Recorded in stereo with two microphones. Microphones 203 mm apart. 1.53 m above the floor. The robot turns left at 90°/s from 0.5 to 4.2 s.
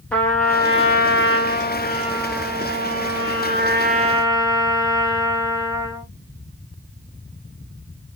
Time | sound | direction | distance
0.1 | a trumpet | 175° left | 2.0 m